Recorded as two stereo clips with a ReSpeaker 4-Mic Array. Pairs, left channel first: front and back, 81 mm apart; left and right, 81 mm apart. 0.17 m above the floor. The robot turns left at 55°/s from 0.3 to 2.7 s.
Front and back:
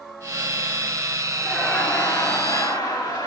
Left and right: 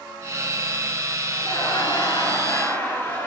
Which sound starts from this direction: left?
Laughter, at 1.4 s.